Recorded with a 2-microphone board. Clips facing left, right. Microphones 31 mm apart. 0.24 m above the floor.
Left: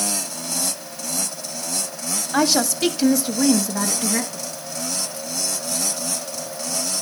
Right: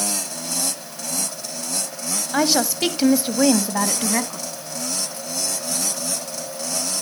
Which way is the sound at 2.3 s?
5° right (ahead or behind).